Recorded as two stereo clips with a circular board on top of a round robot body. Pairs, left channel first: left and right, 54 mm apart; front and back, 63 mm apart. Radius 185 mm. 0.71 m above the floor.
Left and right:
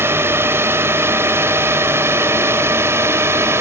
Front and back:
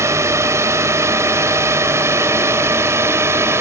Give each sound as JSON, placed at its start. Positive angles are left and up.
{"t": 0.0, "sound": "a drone", "azimuth_deg": -135}